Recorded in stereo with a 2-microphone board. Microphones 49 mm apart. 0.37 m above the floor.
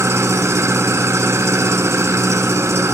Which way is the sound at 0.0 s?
70° right (ahead or behind).